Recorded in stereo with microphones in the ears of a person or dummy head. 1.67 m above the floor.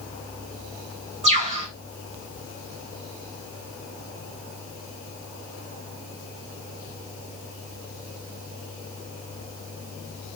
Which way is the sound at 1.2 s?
30° right (ahead or behind).